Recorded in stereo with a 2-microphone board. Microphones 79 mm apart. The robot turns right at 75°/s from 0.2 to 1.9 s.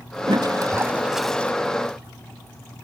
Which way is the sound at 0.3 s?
70° right.